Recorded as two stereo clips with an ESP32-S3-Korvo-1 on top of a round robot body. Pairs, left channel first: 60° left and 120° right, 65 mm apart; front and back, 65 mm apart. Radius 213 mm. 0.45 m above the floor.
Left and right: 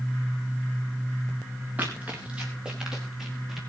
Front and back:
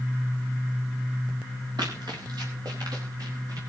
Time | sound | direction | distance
1.8 | running footsteps | 175° left | 4 m